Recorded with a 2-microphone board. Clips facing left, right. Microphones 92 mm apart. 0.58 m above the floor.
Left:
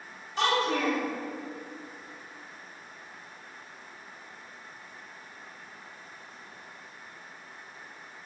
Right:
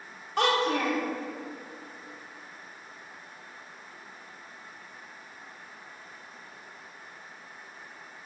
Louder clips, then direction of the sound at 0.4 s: Right 1 dB; 50° right (ahead or behind).